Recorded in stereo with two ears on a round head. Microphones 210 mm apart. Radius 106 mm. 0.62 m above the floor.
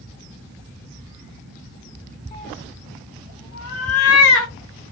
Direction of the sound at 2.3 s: 30° left (ahead or behind).